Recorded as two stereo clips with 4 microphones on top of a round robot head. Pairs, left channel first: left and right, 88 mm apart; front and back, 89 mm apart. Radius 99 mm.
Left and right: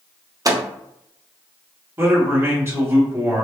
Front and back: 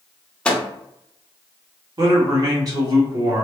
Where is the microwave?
70° right, 0.6 m.